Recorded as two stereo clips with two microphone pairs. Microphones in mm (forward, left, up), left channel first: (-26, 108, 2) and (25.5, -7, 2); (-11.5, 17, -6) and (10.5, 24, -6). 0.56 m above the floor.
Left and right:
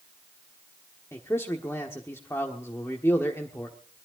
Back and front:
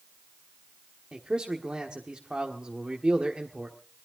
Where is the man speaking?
55° left, 1.4 m.